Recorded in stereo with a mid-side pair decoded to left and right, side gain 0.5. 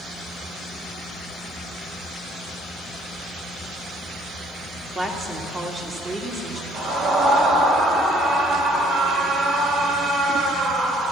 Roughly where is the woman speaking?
Ahead right.